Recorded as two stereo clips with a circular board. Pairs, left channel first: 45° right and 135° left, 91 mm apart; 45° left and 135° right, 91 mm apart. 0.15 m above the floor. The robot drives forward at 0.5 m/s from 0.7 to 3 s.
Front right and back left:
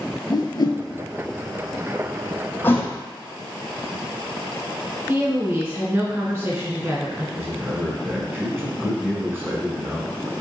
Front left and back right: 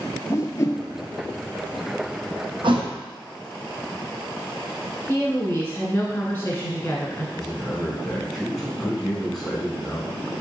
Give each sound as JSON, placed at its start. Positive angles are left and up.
{"t": 0.3, "sound": "a whoosh", "azimuth_deg": -10, "distance_m": 0.6}
{"t": 2.6, "sound": "a thud", "azimuth_deg": -110, "distance_m": 0.9}
{"t": 5.1, "sound": "a woman speaking", "azimuth_deg": 95, "distance_m": 1.7}
{"t": 7.3, "sound": "a man speaking", "azimuth_deg": 130, "distance_m": 1.2}